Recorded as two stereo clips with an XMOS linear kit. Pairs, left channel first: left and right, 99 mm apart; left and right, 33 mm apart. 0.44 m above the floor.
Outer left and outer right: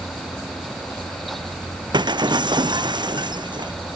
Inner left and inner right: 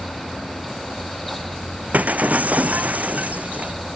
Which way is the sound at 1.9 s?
55° right (ahead or behind).